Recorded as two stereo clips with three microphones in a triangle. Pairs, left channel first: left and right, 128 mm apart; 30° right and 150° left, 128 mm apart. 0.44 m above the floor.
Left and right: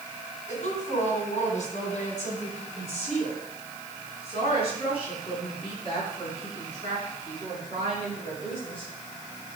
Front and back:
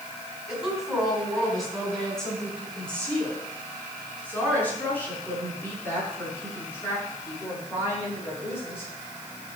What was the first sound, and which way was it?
A woman speaking, 65° left.